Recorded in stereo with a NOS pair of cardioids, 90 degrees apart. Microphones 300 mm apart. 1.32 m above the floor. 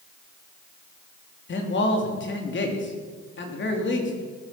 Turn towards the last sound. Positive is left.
turn(degrees=40)